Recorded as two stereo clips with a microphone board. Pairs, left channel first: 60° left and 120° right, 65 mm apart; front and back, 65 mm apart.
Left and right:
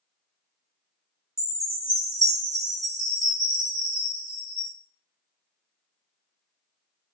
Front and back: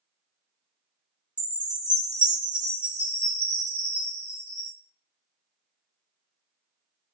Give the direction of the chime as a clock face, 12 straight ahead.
7 o'clock.